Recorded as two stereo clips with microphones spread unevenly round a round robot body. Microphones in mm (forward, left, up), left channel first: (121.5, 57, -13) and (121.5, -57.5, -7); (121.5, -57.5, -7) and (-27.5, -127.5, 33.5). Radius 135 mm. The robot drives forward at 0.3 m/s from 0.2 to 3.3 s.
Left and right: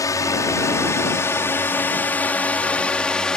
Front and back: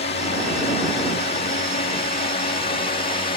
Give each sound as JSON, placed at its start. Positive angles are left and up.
{"t": 0.0, "sound": "a drone", "azimuth_deg": 40}